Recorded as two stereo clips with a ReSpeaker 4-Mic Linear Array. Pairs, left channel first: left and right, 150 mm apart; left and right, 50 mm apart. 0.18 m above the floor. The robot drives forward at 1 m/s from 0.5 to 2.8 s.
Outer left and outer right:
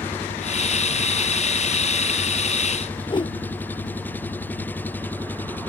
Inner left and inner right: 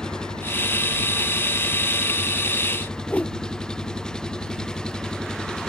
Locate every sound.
0.0 s an engine running: 15° left (ahead or behind); by 5.7 s 10° left (ahead or behind)
3.1 s a whoosh: 35° left (ahead or behind)